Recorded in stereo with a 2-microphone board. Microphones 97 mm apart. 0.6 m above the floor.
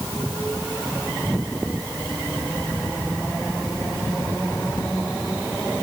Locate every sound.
Only background noise.